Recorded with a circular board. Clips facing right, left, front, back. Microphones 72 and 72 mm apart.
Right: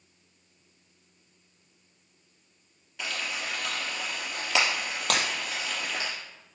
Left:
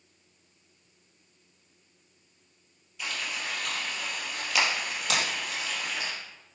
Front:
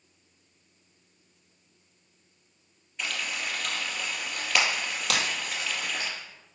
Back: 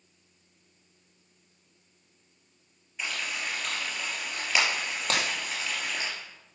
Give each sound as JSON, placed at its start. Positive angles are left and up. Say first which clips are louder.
{"t": 3.0, "sound": "frying", "louder": "right 1 dB, front 1 dB", "azimuth_deg": -95, "distance_m": 3.0}
{"t": 5.1, "sound": "breaking glass", "louder": "right 2 dB, even", "azimuth_deg": -125, "distance_m": 2.0}